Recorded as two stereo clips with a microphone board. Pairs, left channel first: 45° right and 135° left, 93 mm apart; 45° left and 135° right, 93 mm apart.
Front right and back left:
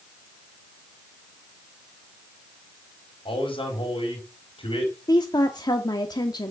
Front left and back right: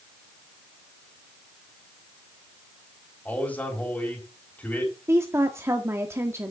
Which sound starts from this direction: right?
A woman speaking, at 5.1 s.